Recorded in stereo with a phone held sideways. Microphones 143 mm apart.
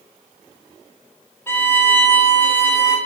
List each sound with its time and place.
1.5 s a violin: 15° left (ahead or behind), 2.5 m